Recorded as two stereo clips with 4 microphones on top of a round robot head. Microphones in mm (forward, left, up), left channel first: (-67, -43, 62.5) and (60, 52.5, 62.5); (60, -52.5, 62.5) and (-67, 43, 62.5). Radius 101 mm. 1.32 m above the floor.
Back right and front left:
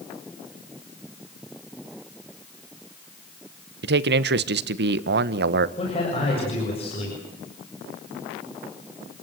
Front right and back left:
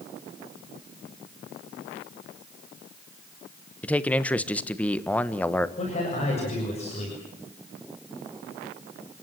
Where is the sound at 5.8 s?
85° right, 7 m.